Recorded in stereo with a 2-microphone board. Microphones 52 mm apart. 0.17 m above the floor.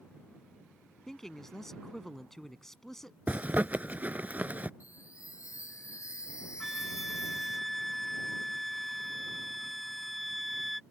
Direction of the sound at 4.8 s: 85° left.